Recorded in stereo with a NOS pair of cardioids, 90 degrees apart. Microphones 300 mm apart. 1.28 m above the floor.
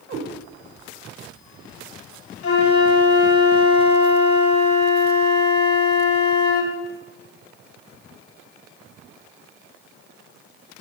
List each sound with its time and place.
0.1 s a cat meowing: 70° right, 2.5 m
2.4 s a flute: 50° left, 1.8 m